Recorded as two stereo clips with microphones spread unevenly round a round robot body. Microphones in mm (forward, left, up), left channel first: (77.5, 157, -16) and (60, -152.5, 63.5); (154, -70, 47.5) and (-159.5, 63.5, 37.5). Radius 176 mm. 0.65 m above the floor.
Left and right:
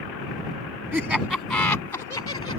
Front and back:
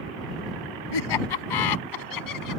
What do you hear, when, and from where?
0.9 s laughter: 10° right; by 2.6 s 15° left